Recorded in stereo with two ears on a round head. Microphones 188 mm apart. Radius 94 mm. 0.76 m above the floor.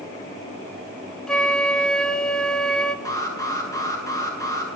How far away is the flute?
About 1.2 m.